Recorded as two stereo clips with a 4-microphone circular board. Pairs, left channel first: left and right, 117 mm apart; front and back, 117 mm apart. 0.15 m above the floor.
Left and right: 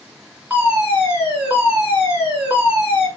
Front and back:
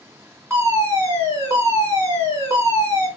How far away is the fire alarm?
About 2.5 m.